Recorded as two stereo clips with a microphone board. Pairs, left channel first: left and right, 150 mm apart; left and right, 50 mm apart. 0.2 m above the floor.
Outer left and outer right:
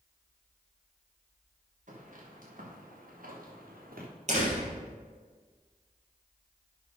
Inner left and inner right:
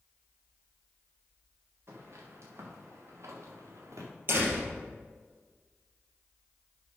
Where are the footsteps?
55° right (ahead or behind), 4.5 m; by 4.1 s 80° right, 3.5 m.